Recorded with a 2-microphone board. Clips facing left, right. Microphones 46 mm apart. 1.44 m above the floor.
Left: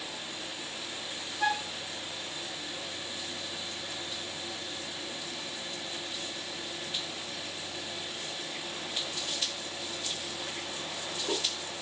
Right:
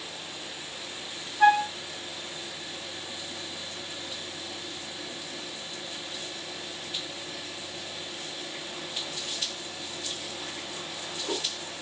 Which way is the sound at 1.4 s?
30° right (ahead or behind).